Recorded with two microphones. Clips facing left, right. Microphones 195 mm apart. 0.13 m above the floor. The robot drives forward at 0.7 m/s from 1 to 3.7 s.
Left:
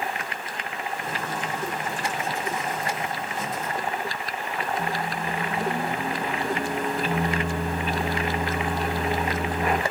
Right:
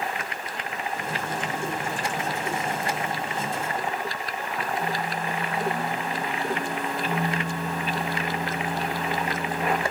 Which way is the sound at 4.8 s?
40° left (ahead or behind).